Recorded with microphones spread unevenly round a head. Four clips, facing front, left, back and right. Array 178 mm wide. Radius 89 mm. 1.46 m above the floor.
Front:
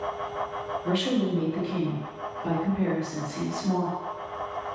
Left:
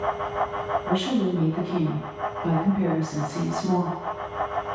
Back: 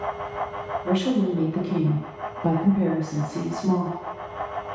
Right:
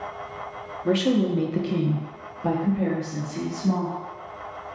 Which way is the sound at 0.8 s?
80° right.